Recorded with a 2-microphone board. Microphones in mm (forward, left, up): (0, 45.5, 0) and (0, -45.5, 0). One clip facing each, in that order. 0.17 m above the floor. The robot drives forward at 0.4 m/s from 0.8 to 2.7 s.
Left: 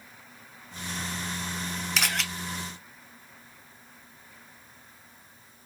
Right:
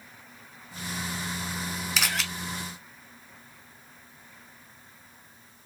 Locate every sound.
2.0 s a camera shutter: centre (ahead or behind), 1.1 m